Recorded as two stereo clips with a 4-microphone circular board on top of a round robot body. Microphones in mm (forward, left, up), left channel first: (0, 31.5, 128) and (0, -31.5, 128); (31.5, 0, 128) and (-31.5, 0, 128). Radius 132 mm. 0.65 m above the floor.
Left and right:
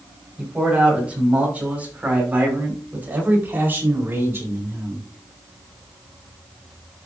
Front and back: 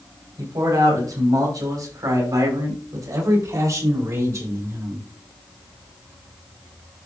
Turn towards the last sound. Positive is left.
turn(degrees=-140)